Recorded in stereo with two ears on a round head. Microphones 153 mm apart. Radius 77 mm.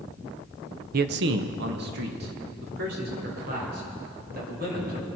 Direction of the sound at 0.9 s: 50° right (ahead or behind).